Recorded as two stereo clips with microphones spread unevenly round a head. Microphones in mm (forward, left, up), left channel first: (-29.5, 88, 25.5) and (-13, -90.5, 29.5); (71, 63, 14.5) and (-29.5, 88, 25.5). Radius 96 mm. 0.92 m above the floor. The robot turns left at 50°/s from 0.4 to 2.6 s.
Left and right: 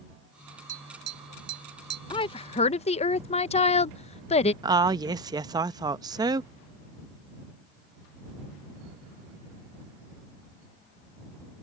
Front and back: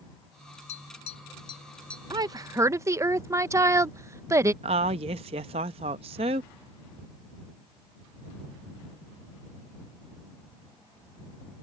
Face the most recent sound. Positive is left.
turn(degrees=-155)